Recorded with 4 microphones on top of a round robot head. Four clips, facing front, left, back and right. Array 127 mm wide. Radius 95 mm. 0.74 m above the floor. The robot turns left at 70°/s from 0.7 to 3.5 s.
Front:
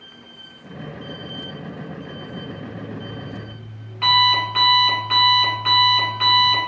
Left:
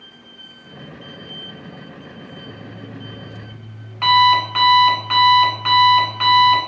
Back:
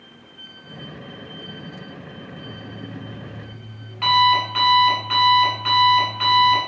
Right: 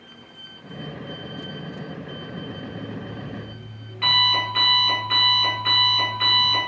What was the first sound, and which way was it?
An alarm clock, 160° left.